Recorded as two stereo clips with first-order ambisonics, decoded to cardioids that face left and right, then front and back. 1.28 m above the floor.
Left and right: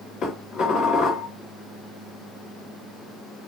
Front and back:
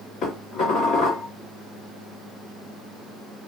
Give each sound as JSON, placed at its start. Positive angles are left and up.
{"t": 0.2, "sound": "dishes clattering", "azimuth_deg": 45, "distance_m": 1.8}